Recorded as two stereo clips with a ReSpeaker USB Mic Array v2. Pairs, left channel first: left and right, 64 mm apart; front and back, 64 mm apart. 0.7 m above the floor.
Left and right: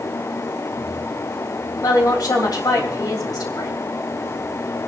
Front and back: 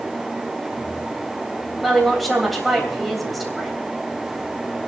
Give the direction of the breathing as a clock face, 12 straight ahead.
I don't hear breathing.